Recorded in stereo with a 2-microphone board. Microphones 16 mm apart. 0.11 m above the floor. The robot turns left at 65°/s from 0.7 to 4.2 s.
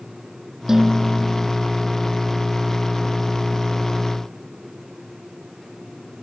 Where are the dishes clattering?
150° right; by 1.5 s 155° left.